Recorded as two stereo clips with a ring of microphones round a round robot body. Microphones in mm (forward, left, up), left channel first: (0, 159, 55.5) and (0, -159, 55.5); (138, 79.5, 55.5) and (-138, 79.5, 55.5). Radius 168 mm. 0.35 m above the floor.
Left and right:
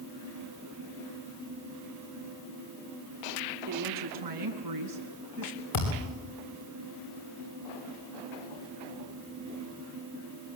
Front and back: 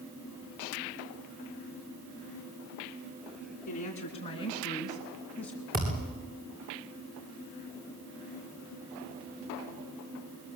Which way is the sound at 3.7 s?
65° right.